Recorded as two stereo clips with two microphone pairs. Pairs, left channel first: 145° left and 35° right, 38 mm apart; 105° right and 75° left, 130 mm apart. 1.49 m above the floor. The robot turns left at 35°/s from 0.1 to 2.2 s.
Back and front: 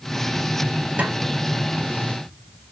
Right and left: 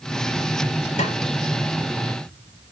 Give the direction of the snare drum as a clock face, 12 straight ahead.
3 o'clock.